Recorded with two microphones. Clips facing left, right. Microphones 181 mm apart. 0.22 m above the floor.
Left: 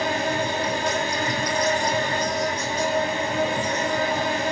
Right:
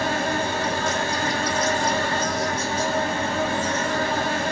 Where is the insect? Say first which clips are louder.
Even; 15° left (ahead or behind), 0.8 m.